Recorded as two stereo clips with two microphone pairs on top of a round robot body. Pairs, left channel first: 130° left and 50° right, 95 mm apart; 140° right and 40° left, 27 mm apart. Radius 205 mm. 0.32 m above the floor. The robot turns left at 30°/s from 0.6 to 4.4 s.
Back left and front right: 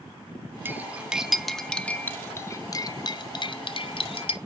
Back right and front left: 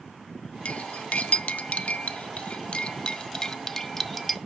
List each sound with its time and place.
0.7 s cutlery clinking: 115° right, 0.6 m; by 4.4 s 130° left, 0.6 m